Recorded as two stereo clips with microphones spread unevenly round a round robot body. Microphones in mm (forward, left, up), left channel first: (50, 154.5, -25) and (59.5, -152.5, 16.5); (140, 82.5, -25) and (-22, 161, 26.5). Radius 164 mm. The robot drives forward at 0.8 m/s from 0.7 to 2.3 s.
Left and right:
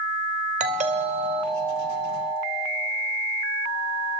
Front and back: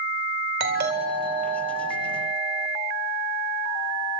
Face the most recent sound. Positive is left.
turn(degrees=-170)